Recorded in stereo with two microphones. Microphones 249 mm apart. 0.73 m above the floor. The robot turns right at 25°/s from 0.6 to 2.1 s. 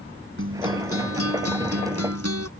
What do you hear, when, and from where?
0.4 s a guitar: 120° right; by 2.5 s 85° right